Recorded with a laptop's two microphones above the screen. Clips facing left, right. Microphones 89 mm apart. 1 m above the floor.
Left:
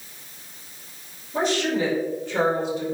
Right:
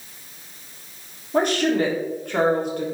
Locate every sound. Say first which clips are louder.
1.3 s a woman speaking: right 3 dB; 55° right (ahead or behind), 3 m